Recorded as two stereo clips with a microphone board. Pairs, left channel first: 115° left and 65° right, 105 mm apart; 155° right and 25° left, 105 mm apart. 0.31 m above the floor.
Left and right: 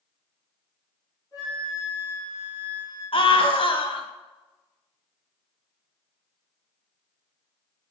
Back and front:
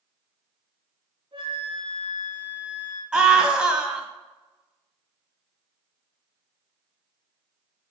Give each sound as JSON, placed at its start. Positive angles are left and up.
{"t": 1.3, "sound": "a flute", "azimuth_deg": 65, "distance_m": 4.0}
{"t": 3.1, "sound": "a scream", "azimuth_deg": 105, "distance_m": 1.7}